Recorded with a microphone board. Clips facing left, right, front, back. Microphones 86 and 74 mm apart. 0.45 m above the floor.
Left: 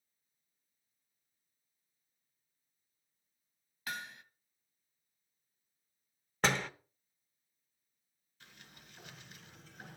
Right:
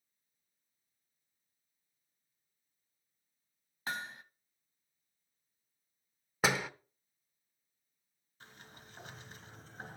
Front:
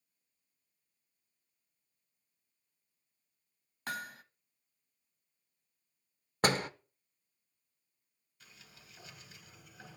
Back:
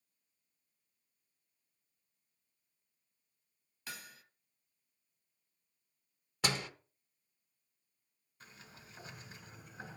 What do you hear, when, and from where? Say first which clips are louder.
3.9 s hammering: right 3 dB, front 10 dB; 35° right, 0.7 m
6.4 s a door slam: right 1 dB, front 6 dB; 10° right, 0.6 m
8.4 s a sliding door: right 4 dB, back 4 dB; 130° right, 2 m